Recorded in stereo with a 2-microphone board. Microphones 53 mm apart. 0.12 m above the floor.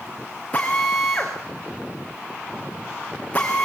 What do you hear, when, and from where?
0.5 s a drill: 20° left (ahead or behind), 5.5 m